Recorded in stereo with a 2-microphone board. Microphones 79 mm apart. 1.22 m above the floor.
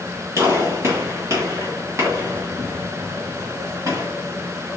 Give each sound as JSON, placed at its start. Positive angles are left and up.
{"t": 0.4, "sound": "a gunshot", "side_deg": -40, "distance_m": 2.0}